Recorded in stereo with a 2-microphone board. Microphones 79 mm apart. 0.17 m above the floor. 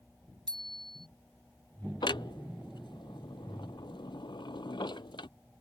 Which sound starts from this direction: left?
A clunk, at 2.0 s.